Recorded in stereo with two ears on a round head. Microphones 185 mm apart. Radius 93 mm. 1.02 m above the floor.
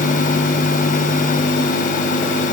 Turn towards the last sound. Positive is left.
No sound to turn to.